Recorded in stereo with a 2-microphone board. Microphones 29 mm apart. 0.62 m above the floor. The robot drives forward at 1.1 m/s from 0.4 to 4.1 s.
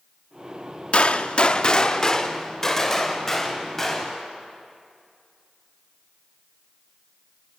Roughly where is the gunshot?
Left.